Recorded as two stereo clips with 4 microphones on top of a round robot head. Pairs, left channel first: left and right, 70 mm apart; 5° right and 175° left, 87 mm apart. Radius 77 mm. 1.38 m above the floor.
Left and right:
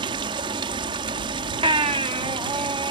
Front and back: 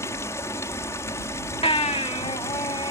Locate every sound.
0.0 s running water: 70° right
1.6 s a baby crying: 50° right